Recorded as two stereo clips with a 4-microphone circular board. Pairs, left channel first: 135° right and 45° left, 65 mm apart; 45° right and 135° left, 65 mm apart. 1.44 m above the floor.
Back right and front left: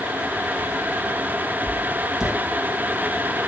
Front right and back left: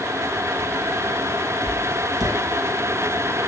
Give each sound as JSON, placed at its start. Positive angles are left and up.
{"t": 1.7, "sound": "writing", "azimuth_deg": 125, "distance_m": 2.5}